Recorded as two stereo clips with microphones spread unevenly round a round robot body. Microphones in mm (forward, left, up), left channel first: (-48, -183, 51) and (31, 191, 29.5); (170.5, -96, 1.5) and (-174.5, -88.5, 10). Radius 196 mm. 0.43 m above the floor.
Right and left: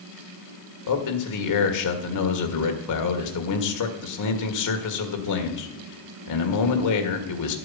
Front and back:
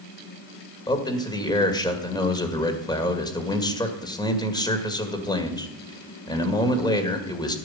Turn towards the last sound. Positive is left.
turn(degrees=-75)